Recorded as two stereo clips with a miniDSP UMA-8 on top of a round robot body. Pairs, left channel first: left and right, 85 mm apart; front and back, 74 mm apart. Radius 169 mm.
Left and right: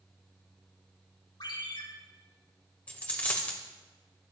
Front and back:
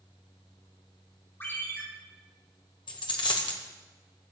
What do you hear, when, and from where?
1.4 s a ringtone: 60° left, 5.5 m
2.9 s a dropped coin: 15° left, 1.2 m